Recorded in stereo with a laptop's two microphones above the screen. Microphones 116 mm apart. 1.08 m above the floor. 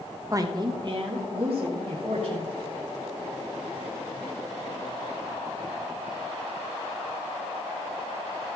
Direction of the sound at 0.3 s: 30° right (ahead or behind).